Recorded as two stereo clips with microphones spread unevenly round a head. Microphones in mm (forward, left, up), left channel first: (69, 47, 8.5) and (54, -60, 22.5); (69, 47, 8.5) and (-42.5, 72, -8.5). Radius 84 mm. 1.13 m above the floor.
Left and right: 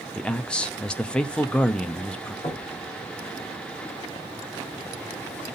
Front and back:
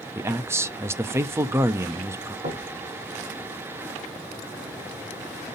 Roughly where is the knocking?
Behind left.